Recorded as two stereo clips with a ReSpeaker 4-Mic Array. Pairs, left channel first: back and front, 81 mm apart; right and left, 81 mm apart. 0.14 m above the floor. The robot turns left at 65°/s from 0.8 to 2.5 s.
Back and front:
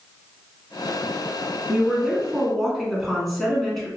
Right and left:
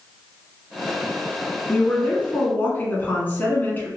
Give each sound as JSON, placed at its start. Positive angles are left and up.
{"t": 1.7, "sound": "a woman speaking", "azimuth_deg": -45, "distance_m": 1.1}